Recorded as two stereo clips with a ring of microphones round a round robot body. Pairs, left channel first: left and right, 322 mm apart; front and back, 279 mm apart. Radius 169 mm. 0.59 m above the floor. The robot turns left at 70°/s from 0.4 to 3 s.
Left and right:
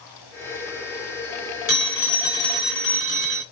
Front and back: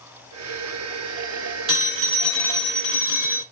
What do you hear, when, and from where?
1.7 s a phone ringing: 140° left, 1.5 m; by 3.4 s 45° left, 1.5 m